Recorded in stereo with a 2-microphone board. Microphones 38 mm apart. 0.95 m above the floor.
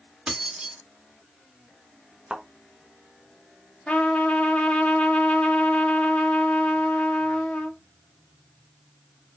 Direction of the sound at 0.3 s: 20° right (ahead or behind).